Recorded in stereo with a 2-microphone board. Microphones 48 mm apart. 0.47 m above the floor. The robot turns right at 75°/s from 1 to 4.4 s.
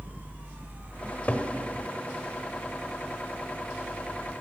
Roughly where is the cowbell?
No cowbell in this recording.